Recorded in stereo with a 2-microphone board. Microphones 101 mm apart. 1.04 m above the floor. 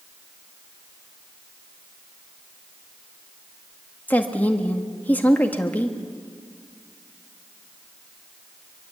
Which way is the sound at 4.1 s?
15° left (ahead or behind).